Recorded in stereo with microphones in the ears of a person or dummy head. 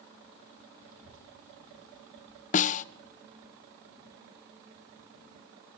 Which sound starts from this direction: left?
A snare drum, at 2.5 s.